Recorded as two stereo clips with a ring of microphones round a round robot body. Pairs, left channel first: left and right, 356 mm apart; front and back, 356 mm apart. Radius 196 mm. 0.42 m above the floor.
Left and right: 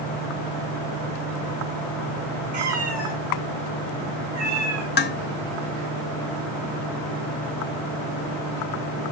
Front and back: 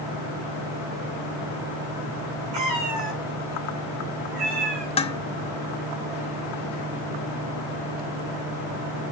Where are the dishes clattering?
60° left, 0.8 m.